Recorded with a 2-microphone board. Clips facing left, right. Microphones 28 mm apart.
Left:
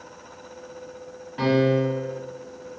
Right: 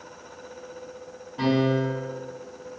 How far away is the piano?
About 0.9 m.